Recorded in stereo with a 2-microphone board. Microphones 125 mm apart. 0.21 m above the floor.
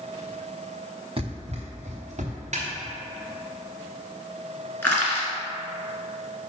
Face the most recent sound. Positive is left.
turn(degrees=20)  # may be behind; listen again after turning